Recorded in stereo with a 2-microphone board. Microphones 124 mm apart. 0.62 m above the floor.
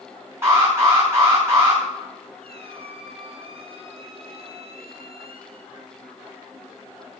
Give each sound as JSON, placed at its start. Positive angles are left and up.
{"t": 0.4, "sound": "an alarm", "side_deg": -20, "distance_m": 6.0}
{"t": 2.4, "sound": "a squeak", "side_deg": -55, "distance_m": 1.7}